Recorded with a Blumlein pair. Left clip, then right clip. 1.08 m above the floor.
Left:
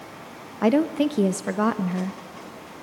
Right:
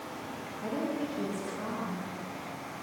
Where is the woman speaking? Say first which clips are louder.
Left 13 dB; 40° left, 0.8 m.